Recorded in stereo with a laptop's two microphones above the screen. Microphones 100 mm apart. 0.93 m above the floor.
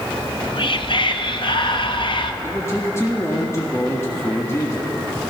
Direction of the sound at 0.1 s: 55° left (ahead or behind).